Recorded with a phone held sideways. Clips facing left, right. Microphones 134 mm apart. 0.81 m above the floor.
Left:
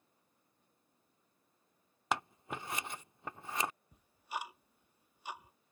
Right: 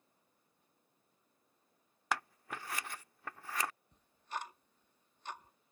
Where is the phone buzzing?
No phone buzzing in this recording.